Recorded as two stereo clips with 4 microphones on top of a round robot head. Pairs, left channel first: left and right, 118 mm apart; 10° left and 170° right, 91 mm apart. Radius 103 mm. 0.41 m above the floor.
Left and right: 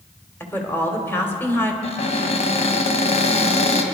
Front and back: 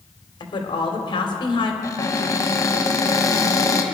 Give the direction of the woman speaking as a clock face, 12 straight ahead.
11 o'clock.